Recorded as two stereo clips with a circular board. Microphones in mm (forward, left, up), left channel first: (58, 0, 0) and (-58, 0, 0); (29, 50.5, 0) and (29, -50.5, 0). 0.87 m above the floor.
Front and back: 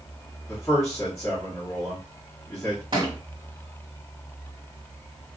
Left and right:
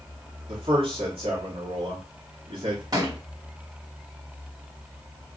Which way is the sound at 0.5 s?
65° right.